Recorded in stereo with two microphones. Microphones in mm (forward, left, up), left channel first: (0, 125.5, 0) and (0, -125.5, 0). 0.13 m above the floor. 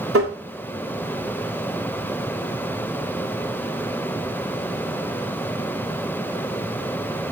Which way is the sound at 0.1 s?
65° right (ahead or behind).